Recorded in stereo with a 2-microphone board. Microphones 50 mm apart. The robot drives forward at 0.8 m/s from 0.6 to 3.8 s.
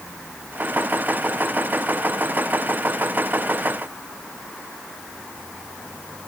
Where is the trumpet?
I don't hear a trumpet.